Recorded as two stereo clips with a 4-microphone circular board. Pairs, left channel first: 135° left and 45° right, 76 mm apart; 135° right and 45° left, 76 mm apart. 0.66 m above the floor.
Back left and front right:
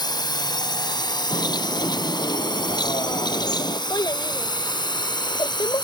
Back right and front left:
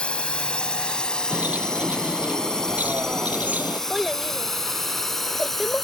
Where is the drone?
150° left; by 5.9 s 140° left.